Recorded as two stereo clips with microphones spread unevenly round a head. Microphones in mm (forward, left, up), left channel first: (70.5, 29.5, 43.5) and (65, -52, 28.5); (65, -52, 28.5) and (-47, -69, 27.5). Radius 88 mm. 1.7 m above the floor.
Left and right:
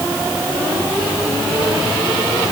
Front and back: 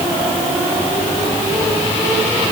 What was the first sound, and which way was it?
Only background noise.